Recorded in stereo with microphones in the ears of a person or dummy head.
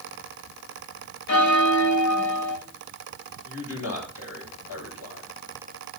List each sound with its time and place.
1.3 s a bell: 55° left (ahead or behind), 1.3 m
3.4 s a man speaking: 80° left, 7 m